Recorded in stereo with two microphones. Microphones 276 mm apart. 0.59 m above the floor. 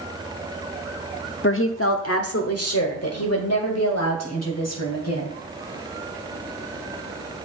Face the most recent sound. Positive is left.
turn(degrees=65)  # may be behind; listen again after turning